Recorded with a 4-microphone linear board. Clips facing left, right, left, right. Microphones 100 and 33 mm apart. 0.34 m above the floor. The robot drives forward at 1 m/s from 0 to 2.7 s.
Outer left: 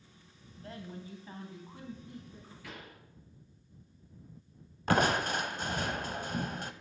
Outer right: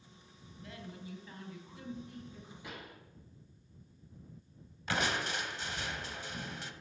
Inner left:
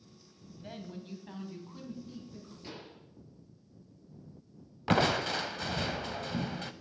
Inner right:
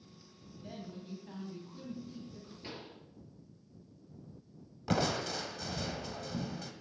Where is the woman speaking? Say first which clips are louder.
Outer left 3 dB, inner left 2 dB; 40° left (ahead or behind), 2.0 m; by 2.5 s 20° left (ahead or behind), 3.5 m.